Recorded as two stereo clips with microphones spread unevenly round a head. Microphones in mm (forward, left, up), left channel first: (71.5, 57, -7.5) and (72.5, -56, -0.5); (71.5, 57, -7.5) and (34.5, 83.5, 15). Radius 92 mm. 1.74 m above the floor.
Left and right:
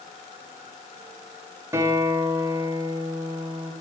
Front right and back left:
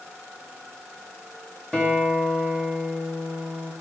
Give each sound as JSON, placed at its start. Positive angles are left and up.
{"t": 1.7, "sound": "a guitar", "azimuth_deg": -145, "distance_m": 2.0}